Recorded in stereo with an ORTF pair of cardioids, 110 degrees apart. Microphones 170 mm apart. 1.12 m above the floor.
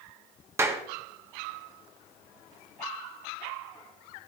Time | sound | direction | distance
0.6 | a clap | 15° right | 1.6 m